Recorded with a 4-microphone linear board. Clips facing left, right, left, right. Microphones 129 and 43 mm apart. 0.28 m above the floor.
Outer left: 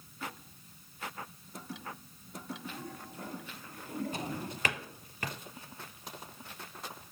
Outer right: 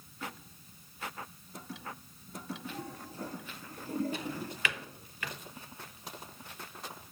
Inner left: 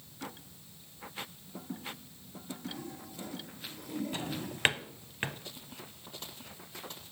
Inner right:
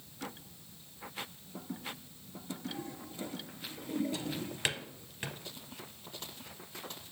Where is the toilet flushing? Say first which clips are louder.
Outer right 1 dB, inner right 1 dB; 35° right (ahead or behind), 4 m.